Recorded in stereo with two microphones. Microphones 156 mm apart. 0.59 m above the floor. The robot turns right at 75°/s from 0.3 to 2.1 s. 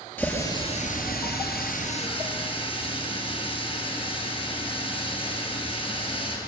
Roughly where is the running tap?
Ahead.